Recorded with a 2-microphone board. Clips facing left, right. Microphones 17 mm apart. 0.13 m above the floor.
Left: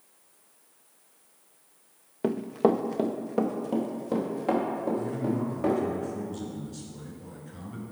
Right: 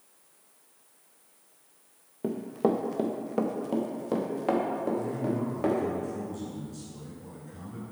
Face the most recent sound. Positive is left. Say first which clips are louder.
# left 1 dB
turn(degrees=30)  # may be behind; listen again after turning